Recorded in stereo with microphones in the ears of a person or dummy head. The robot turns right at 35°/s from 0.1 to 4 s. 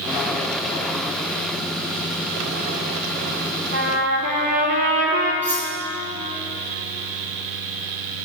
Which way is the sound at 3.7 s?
60° right (ahead or behind).